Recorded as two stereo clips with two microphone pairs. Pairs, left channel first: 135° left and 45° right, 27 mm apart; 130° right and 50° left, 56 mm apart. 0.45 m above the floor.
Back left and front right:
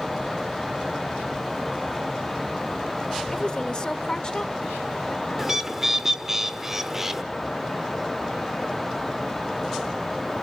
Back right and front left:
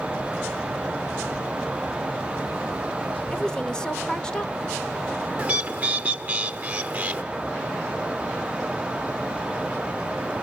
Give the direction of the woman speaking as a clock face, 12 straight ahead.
7 o'clock.